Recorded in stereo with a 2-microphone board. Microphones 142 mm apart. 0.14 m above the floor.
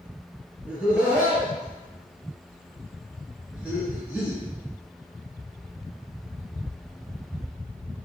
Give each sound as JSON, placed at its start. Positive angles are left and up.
{"t": 0.7, "sound": "laughter", "side_deg": -10, "distance_m": 1.4}